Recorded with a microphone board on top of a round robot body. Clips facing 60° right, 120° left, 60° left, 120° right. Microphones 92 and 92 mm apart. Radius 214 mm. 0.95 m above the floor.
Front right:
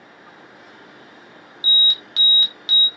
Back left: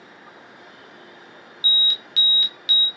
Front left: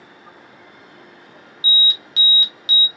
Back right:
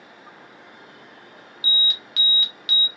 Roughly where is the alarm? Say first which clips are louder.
Front right 3 dB, front left 4 dB; ahead.